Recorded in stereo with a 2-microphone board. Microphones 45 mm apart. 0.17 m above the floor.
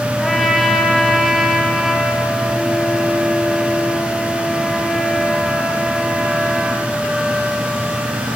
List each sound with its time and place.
0.2 s a trumpet: centre (ahead or behind), 4 m